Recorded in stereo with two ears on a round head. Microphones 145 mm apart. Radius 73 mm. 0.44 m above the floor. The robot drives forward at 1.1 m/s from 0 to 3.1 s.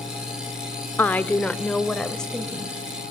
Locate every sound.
1.0 s a woman speaking: 10° left (ahead or behind), 0.8 m; by 2.8 s 5° left (ahead or behind), 2.5 m